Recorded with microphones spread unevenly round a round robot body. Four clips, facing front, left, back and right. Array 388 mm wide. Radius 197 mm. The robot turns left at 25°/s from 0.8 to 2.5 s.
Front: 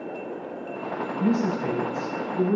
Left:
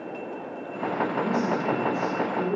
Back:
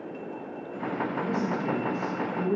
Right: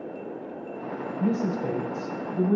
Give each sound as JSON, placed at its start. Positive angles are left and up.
{"t": 1.2, "sound": "a woman speaking", "azimuth_deg": -35, "distance_m": 3.5}